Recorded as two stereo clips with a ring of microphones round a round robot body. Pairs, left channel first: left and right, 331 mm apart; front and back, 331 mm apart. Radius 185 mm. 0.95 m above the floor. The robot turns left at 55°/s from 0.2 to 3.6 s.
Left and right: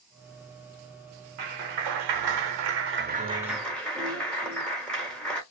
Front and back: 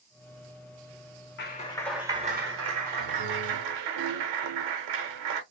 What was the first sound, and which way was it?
A clap, 60° right.